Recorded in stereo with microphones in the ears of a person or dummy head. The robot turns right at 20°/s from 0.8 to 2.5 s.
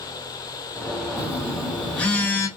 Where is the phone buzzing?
10° right (ahead or behind), 1.7 m; by 2.5 s 15° left (ahead or behind), 1.7 m.